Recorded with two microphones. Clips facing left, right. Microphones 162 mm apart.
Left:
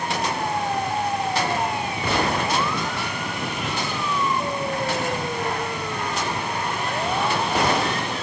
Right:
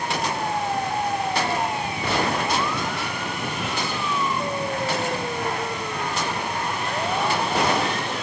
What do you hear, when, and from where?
Only background noise.